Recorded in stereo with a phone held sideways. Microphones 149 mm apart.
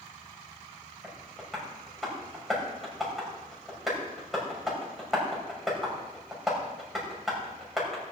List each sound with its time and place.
1.0 s tapping: centre (ahead or behind), 6.5 m